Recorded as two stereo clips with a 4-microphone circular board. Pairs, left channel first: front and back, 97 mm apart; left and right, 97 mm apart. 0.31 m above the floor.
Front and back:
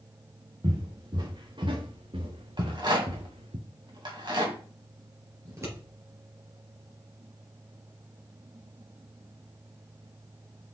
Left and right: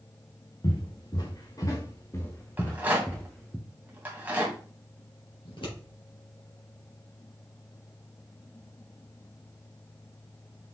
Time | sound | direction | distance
0.6 | footsteps | 135° left | 2.5 m
2.6 | a rattle | 160° right | 2.5 m
5.5 | scissors | 120° left | 3.5 m